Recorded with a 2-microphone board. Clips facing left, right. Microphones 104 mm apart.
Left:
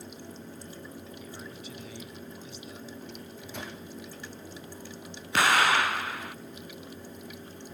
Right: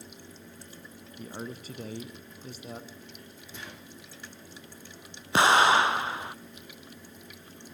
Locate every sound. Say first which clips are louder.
1.2 s a man speaking: right 3 dB; 45° right (ahead or behind), 2.0 m
3.1 s a microwave: left 5 dB; 60° left (ahead or behind), 7.5 m
5.3 s an explosion: right 3 dB; 25° right (ahead or behind), 0.6 m